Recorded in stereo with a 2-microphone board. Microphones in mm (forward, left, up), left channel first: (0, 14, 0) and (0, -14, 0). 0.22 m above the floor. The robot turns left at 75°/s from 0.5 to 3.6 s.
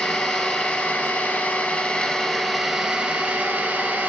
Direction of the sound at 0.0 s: 155° left.